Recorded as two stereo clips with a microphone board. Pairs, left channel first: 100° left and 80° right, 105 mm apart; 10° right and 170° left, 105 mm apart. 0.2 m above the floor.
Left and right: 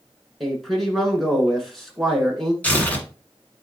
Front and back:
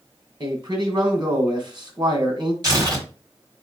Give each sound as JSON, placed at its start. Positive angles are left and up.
{"t": 0.4, "sound": "a man speaking", "azimuth_deg": -170, "distance_m": 1.7}
{"t": 2.6, "sound": "tearing paper", "azimuth_deg": 165, "distance_m": 1.5}